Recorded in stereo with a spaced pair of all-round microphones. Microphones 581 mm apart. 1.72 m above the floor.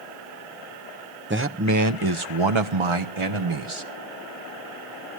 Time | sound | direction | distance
1.3 | a man speaking | 20° right (ahead or behind) | 0.9 m